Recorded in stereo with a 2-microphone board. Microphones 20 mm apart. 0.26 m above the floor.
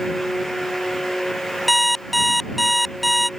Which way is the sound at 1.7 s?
5° left (ahead or behind).